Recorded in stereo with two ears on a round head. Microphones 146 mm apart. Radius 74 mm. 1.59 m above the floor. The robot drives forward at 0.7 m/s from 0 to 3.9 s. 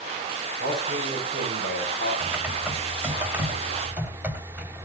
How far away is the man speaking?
About 6 m.